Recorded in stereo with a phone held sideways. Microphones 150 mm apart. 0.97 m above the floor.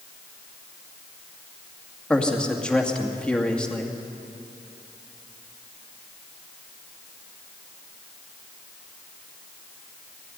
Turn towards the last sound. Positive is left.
turn(degrees=5)  # may be behind; listen again after turning